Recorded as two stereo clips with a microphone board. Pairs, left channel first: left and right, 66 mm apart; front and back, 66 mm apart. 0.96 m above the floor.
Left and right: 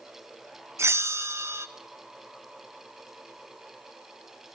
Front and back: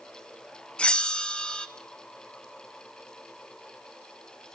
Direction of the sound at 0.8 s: 70° right.